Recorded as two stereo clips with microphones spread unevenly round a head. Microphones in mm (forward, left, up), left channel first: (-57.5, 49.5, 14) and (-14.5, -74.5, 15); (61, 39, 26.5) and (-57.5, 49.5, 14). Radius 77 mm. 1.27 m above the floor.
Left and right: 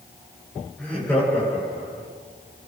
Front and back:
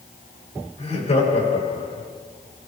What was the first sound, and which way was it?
Laughter, 25° left.